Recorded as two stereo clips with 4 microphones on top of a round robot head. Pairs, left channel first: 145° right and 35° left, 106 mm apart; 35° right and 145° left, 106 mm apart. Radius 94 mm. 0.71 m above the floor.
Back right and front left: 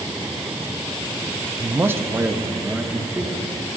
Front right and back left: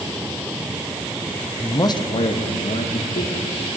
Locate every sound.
1.6 s a man speaking: 5° left, 0.7 m; by 3.7 s 45° right, 2 m